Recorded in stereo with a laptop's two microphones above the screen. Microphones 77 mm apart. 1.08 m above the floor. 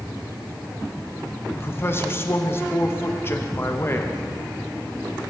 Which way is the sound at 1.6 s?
30° left (ahead or behind).